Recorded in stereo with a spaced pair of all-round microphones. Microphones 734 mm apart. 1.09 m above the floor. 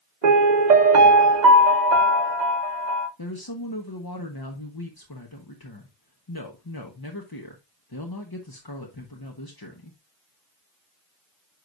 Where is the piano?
70° right (ahead or behind), 1.1 m.